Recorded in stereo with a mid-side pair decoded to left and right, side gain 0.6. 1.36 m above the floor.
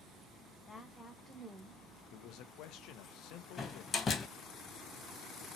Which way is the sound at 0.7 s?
20° left.